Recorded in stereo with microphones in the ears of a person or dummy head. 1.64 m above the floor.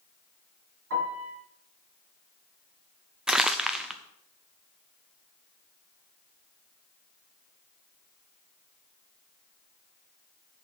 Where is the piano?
70° right (ahead or behind), 4.5 m.